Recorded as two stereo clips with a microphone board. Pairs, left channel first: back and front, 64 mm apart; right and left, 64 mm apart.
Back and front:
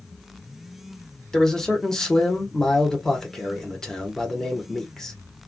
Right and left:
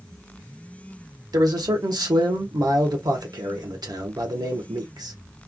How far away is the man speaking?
About 1.2 m.